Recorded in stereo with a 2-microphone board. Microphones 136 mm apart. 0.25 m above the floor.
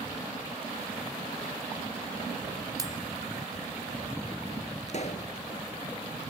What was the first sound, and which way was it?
Cutlery clinking, 25° right (ahead or behind).